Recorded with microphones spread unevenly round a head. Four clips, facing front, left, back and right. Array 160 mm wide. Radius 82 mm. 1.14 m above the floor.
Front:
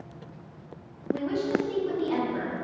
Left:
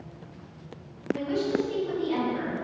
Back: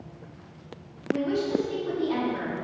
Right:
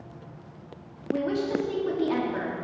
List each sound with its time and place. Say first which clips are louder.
1.1 s a woman speaking: even, back 1 dB; 100° right, 3 m